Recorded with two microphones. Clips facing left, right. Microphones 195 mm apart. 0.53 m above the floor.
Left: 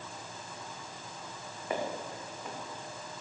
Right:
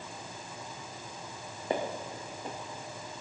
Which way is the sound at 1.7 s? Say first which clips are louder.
Right 2 dB; 30° right (ahead or behind).